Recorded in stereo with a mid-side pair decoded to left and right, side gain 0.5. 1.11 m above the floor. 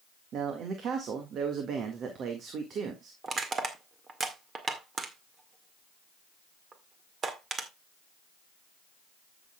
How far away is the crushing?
About 1.9 m.